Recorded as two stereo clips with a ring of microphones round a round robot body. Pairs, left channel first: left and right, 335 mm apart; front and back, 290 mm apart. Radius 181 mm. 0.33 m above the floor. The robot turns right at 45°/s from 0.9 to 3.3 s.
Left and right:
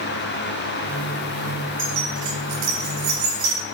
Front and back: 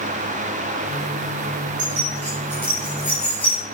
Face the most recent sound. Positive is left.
turn(degrees=-65)